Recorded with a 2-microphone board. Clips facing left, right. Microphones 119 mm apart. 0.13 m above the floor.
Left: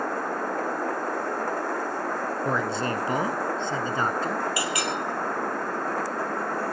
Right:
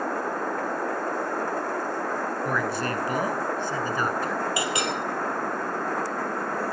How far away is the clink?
About 2.5 m.